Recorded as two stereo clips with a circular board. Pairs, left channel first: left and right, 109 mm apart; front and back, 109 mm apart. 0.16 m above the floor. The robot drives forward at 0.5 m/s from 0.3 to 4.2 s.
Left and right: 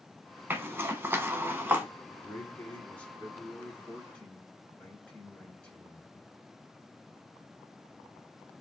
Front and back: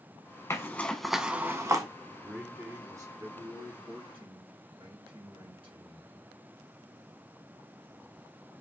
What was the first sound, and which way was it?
A zipper, 35° right.